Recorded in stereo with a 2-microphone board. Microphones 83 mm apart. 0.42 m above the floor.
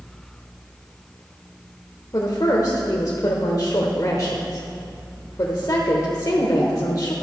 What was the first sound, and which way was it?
A woman speaking, 45° left (ahead or behind).